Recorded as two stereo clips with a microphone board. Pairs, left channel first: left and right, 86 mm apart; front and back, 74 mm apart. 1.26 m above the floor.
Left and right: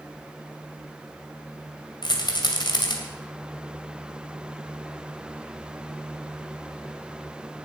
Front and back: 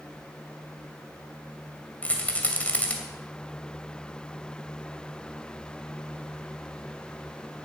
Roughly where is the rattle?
Left.